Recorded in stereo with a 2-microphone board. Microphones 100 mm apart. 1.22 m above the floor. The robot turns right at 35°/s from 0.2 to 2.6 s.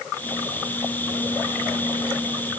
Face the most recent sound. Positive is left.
No sound to turn to.